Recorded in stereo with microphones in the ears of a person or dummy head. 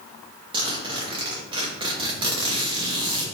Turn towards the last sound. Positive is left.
turn(degrees=-20)  # may be behind; listen again after turning